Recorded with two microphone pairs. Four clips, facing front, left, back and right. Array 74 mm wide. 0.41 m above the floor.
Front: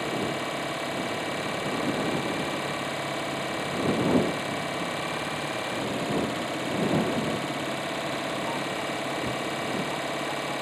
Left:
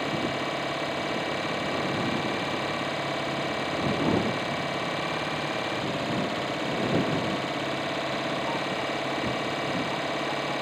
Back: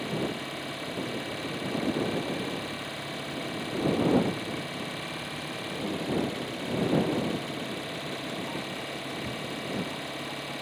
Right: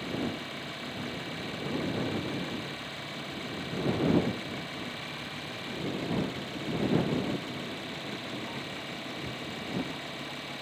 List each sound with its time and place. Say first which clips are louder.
0.0 s an engine running: left 6 dB, front 3 dB; 60° left